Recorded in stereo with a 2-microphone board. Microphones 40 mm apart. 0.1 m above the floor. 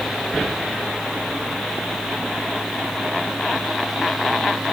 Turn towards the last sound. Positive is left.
No sound to turn to.